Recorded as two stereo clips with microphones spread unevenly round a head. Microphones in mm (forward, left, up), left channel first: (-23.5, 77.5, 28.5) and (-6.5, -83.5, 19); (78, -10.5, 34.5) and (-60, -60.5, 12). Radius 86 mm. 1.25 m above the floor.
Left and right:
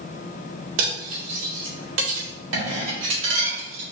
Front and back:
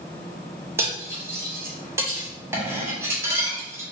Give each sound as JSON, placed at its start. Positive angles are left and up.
{"t": 0.8, "sound": "cutlery clinking", "azimuth_deg": -85, "distance_m": 2.5}